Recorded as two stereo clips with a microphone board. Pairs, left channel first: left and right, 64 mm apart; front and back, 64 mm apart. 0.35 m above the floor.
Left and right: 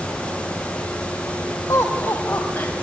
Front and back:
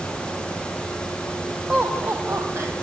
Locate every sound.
1.7 s laughter: 115° left, 1.9 m; by 2.7 s 155° left, 1.9 m